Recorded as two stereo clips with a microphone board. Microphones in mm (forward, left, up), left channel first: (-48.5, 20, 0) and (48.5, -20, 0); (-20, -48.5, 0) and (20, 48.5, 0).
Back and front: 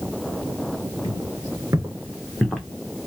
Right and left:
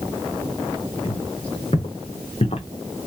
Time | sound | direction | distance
1.0 | footsteps | 75° right | 1.9 m